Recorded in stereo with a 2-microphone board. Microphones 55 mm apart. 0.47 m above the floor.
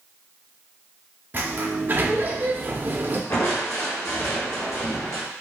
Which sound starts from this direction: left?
Crushing, at 3.3 s.